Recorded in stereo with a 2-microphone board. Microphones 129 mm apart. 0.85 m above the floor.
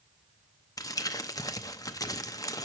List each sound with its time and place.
0.8 s crumpling: 25° left (ahead or behind), 0.6 m